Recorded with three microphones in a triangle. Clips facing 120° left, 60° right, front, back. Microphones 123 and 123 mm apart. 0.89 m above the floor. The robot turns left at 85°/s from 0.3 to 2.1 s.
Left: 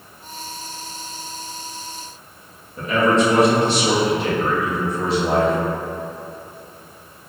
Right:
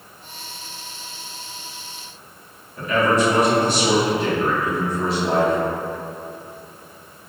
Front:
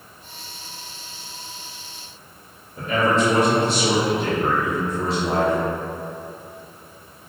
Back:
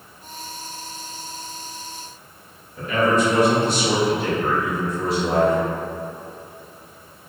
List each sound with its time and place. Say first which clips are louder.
2.8 s a man speaking: left 1 dB, back 1 dB; 60° left, 1.5 m